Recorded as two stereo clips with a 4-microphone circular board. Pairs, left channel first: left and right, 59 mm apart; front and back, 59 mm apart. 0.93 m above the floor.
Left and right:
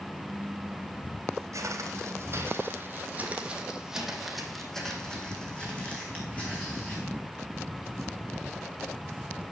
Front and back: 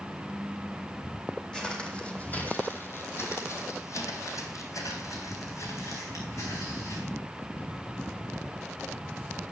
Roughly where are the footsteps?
Right.